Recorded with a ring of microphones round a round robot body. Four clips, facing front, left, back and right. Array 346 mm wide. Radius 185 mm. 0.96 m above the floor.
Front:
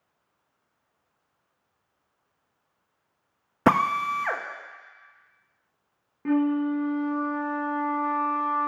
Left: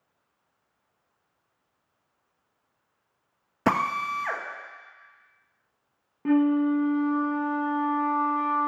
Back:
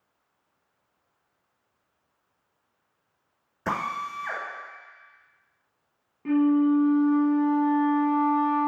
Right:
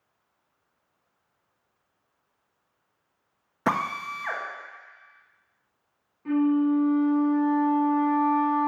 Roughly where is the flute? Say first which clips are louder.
Left 1 dB, back 3 dB; left.